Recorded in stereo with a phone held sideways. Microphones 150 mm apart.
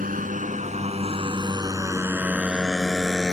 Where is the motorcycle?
70° right (ahead or behind); by 3.3 s 5° left (ahead or behind).